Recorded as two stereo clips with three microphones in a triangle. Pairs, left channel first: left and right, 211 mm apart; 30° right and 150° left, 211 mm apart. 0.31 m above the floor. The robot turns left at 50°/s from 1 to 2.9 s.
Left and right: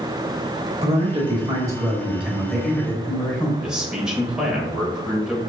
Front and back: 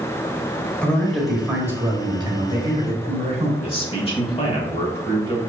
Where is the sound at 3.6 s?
5° right, 0.9 m.